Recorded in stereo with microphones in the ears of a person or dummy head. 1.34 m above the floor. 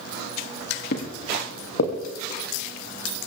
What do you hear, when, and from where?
0.9 s footsteps: 60° left (ahead or behind), 2.5 m; by 1.9 s 65° left (ahead or behind), 3.5 m